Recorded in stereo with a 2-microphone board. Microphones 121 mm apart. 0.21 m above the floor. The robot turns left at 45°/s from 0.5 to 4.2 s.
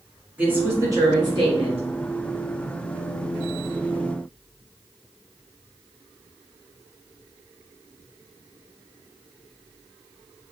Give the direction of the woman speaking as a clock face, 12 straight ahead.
1 o'clock.